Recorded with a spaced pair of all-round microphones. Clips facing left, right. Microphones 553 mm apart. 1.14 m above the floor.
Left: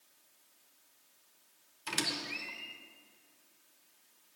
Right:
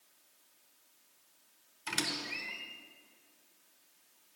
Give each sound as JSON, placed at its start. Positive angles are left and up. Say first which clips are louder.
{"t": 1.9, "sound": "a squeak", "louder": "even", "side_deg": -5, "distance_m": 0.9}